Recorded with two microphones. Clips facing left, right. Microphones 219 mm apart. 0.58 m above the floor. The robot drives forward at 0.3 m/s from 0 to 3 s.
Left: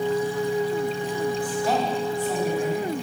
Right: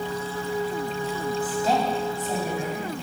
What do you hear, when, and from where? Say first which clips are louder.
1.4 s a woman speaking: even; 25° right (ahead or behind), 3.5 m; by 3.0 s 20° right (ahead or behind), 4 m